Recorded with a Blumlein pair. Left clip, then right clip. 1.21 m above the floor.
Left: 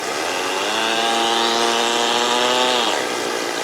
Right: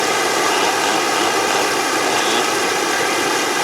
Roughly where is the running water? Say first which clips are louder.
Right 5 dB; ahead.